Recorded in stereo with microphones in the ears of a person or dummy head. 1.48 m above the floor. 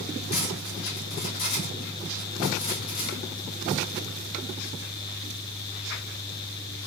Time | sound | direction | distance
0.3 | cutlery clinking | 75° left (ahead or behind) | 1.7 m